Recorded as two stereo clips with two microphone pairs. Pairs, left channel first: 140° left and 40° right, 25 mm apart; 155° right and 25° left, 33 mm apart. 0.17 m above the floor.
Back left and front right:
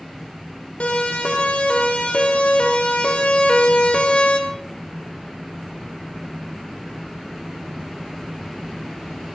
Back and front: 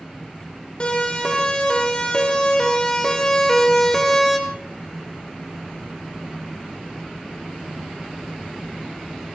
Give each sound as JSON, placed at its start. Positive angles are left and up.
{"t": 0.8, "sound": "a siren", "azimuth_deg": 150, "distance_m": 5.0}